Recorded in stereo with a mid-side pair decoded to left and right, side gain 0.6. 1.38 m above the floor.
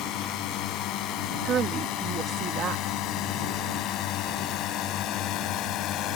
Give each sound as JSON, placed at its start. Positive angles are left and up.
{"t": 0.0, "sound": "a drone", "azimuth_deg": 65}
{"t": 1.4, "sound": "a woman speaking", "azimuth_deg": -45}